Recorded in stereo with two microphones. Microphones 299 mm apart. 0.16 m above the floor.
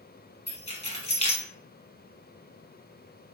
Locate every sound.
0.5 s keys jangling: 20° left (ahead or behind), 0.9 m